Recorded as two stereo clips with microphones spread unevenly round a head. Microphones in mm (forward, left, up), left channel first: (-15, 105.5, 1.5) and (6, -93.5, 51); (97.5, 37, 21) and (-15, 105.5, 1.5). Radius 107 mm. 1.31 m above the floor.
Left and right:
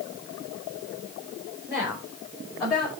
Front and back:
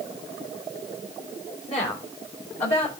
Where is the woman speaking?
5° right, 4.5 m; by 2.9 s 5° left, 5 m.